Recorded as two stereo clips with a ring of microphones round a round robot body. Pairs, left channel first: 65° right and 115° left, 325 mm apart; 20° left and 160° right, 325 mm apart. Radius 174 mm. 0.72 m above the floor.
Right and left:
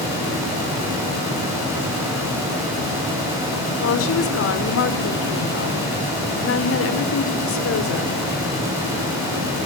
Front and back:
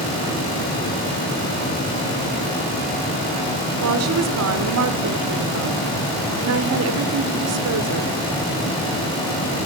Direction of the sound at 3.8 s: 115° right.